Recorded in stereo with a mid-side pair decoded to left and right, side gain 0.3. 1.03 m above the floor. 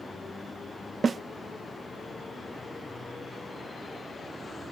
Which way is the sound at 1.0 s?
50° right.